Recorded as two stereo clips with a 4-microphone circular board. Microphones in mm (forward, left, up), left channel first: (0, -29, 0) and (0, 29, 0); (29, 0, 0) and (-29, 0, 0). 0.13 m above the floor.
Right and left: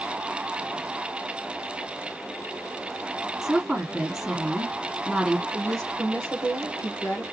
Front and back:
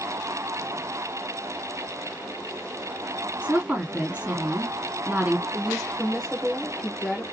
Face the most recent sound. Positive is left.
turn(degrees=-90)